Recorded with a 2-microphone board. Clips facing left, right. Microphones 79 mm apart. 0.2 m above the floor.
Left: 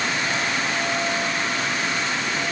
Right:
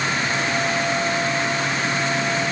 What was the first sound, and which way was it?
Only background noise.